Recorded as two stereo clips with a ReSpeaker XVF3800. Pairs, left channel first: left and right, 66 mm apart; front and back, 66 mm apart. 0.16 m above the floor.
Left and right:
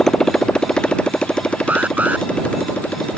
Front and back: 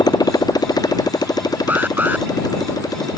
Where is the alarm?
135° right.